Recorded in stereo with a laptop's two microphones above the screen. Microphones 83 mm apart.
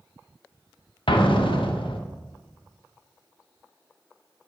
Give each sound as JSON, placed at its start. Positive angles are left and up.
{"t": 1.1, "sound": "an explosion", "side_deg": 80, "distance_m": 0.8}